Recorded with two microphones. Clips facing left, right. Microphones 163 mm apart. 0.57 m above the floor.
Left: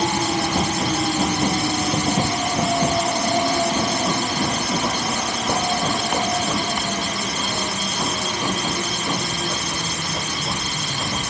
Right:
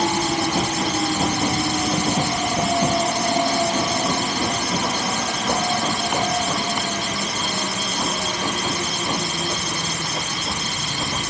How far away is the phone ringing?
I don't hear a phone ringing.